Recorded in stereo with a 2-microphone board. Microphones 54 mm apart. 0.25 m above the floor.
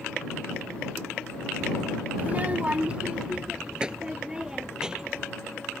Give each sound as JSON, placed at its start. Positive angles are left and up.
{"t": 2.2, "sound": "a child speaking", "side_deg": -30}